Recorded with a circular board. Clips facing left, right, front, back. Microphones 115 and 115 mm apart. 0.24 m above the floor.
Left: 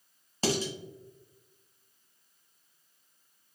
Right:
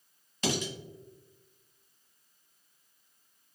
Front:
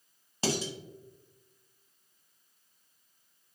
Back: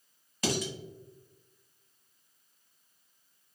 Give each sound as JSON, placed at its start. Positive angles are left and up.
{"t": 0.4, "sound": "dishes clattering", "azimuth_deg": 50, "distance_m": 1.1}